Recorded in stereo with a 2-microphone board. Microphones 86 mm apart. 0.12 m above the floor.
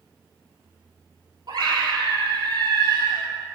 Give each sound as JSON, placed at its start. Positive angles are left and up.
{"t": 1.5, "sound": "a scream", "side_deg": -50, "distance_m": 3.0}